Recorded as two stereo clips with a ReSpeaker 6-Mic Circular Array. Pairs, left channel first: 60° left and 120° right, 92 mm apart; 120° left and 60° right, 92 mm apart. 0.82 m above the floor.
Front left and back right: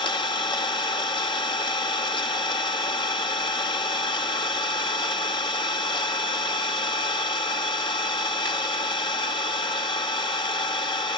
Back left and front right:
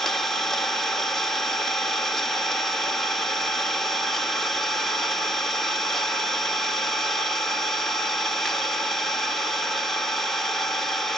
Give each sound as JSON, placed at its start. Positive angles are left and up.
{"t": 0.0, "sound": "an engine running", "azimuth_deg": 35, "distance_m": 1.2}